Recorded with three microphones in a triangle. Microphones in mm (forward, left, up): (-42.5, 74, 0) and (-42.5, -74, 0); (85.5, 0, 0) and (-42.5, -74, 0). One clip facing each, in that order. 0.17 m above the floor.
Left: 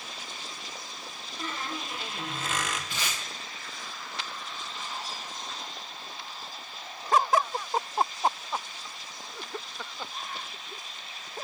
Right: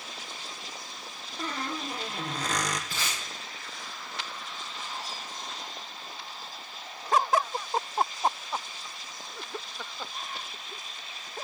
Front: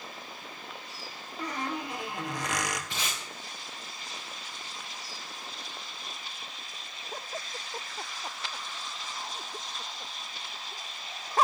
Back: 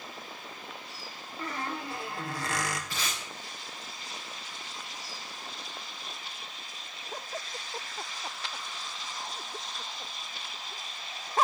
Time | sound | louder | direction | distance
1.4 | a squeak | right 2 dB, front 2 dB | 40° right | 1.4 m
2.9 | tape being pulled | even, even | 35° right | 7.5 m